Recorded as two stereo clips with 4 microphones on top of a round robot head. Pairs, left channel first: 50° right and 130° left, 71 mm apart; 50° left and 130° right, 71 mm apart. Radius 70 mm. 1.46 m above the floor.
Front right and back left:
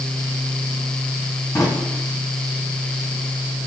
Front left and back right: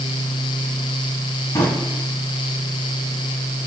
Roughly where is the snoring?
No snoring in this recording.